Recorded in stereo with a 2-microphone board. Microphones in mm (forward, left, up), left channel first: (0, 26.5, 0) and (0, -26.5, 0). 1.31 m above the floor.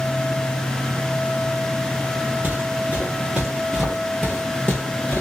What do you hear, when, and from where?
2.4 s footsteps: 35° right (ahead or behind), 1.5 m; by 5.2 s 25° left (ahead or behind), 1.6 m